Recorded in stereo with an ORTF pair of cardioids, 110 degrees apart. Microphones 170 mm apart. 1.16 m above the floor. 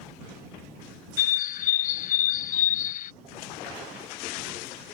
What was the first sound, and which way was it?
A bird, 55° left.